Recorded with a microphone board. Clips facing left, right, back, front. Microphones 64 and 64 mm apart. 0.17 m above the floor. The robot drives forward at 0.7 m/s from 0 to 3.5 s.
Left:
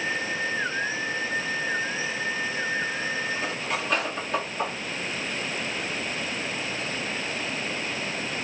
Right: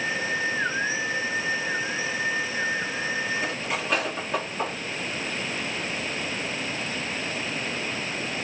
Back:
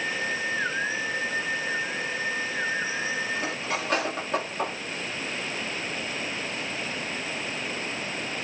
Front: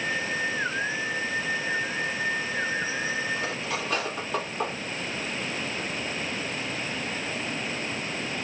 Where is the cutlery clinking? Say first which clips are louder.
Right 1 dB, back 1 dB; 175° right, 2 m.